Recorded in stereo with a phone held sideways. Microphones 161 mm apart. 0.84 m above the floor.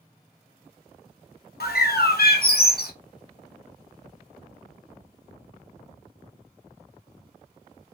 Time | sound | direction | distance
1.6 | a bird | 75° left (ahead or behind) | 0.5 m